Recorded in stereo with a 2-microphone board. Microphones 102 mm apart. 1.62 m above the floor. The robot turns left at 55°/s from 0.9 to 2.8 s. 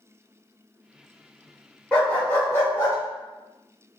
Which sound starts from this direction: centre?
A dog barking, at 1.9 s.